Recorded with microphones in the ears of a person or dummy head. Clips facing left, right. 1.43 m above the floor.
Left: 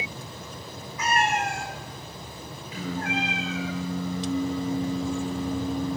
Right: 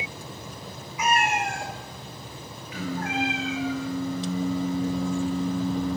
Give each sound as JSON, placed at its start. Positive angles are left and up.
{"t": 1.0, "sound": "a cat meowing", "side_deg": -10, "distance_m": 2.0}
{"t": 2.7, "sound": "singing", "side_deg": 25, "distance_m": 8.0}